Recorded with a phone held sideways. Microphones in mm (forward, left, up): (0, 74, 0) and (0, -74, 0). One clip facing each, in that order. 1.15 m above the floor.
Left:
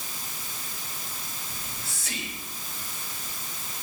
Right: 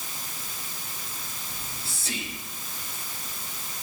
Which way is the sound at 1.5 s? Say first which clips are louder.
Even; 35° right (ahead or behind).